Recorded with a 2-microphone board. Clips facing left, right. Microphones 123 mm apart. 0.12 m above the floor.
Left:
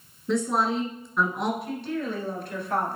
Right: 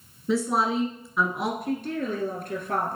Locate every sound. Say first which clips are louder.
0.3 s a woman speaking: even; 5° right (ahead or behind), 1.5 m
1.6 s a woman speaking: right 2 dB; 50° right (ahead or behind), 2 m